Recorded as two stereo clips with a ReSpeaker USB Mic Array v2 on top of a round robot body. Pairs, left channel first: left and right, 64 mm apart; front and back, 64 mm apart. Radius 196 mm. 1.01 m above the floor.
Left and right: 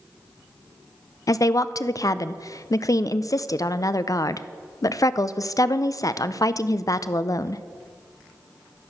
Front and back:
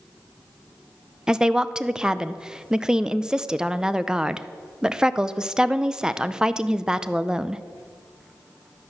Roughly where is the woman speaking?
Left.